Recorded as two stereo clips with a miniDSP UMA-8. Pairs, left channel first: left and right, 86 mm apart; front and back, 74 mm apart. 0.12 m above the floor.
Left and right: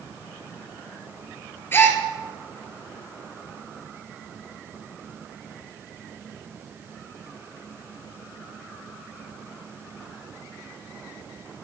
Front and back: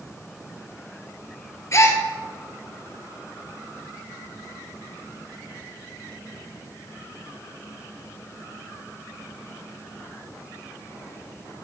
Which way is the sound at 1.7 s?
35° left.